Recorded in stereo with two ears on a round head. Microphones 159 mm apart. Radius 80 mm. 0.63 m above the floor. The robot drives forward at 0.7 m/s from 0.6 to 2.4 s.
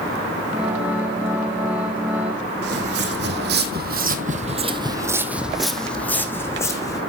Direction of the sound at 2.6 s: 65° right (ahead or behind).